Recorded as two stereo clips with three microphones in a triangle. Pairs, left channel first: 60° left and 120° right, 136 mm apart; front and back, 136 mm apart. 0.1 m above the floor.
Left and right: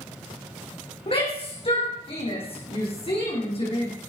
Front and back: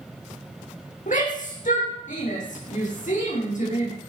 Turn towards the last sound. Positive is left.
turn(degrees=15)